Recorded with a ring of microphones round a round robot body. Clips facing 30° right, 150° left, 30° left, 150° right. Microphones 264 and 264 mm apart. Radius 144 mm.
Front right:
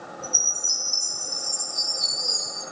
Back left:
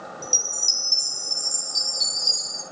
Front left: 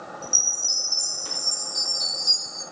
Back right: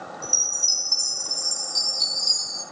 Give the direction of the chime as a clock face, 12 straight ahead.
7 o'clock.